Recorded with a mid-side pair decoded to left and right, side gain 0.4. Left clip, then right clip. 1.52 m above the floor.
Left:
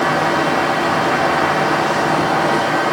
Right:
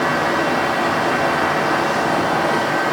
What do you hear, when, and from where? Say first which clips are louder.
0.0 s a fan: left 2 dB; 25° left, 0.8 m